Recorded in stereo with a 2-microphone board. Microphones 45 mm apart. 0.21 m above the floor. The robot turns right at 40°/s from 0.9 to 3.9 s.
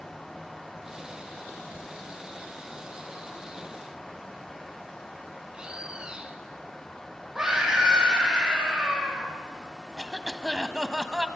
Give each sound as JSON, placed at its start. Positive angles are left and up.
{"t": 5.5, "sound": "a bird", "side_deg": -25, "distance_m": 2.5}
{"t": 7.3, "sound": "a scream", "side_deg": -10, "distance_m": 9.5}
{"t": 10.0, "sound": "a cough", "side_deg": -10, "distance_m": 1.3}